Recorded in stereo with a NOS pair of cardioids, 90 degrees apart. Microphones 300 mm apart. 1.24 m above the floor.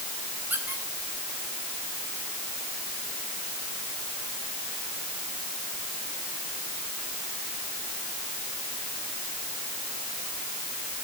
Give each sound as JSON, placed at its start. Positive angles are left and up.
{"t": 0.5, "sound": "a squeak", "azimuth_deg": -5, "distance_m": 4.0}